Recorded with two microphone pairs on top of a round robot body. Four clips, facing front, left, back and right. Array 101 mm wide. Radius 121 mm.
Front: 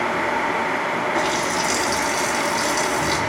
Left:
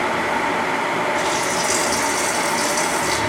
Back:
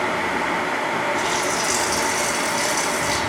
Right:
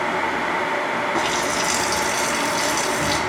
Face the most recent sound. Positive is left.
turn(degrees=-60)